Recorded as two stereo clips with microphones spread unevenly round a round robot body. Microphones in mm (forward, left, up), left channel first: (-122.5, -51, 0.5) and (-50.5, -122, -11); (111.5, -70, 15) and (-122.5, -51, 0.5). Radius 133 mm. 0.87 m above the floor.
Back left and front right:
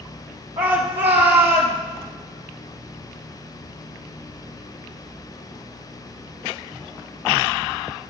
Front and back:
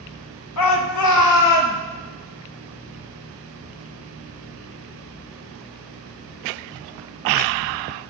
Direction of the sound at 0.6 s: 15° left.